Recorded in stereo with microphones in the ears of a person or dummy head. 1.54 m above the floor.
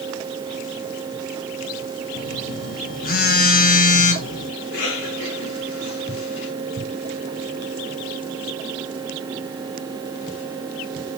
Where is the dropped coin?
I don't hear a dropped coin.